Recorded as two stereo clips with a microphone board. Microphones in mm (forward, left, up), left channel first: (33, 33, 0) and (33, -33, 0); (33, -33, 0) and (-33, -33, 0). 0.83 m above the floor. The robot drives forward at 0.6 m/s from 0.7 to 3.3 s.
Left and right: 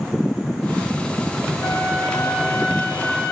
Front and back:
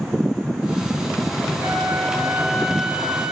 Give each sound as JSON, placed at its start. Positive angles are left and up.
{"t": 1.6, "sound": "a flute", "azimuth_deg": 100, "distance_m": 6.5}